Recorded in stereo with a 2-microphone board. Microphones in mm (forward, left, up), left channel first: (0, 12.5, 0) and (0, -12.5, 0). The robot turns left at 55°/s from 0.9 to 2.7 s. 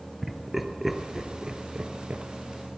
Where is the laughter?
10° right (ahead or behind), 2.5 m; by 2.2 s 50° right (ahead or behind), 2.5 m.